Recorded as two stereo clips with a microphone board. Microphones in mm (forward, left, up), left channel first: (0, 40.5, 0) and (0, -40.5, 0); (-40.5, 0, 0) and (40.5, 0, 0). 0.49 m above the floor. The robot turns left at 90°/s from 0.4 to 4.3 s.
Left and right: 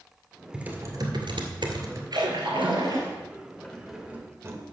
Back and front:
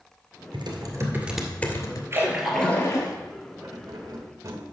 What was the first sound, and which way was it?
Typing on a keyboard, 10° right.